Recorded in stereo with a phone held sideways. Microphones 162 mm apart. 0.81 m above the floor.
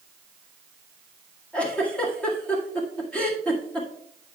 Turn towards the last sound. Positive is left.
turn(degrees=10)  # may be behind; listen again after turning